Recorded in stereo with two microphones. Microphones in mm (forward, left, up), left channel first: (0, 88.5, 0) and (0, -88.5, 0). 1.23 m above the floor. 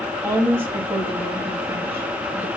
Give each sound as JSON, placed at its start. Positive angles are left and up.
{"t": 0.2, "sound": "a woman speaking", "side_deg": -15, "distance_m": 2.0}